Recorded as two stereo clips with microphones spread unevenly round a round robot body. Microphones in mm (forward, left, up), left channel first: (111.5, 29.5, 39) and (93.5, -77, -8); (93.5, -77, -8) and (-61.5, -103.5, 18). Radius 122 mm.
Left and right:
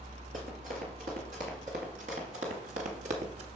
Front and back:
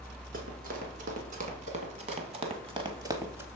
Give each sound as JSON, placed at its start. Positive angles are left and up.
{"t": 0.3, "sound": "running footsteps", "azimuth_deg": -160, "distance_m": 2.5}